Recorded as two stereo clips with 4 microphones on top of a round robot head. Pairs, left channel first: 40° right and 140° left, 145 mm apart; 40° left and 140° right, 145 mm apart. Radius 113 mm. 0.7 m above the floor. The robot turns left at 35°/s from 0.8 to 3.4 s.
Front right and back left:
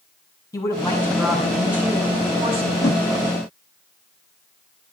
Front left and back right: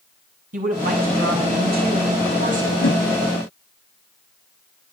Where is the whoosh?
30° left, 4 m; by 3.0 s 20° left, 4 m.